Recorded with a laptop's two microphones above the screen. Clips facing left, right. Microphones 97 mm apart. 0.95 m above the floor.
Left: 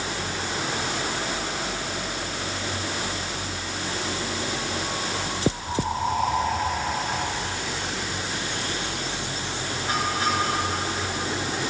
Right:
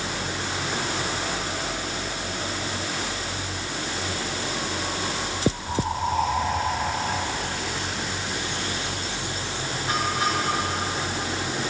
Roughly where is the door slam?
No door slam in this recording.